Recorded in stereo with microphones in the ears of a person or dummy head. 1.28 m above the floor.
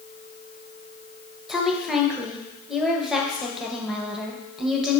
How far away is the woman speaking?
About 1.1 m.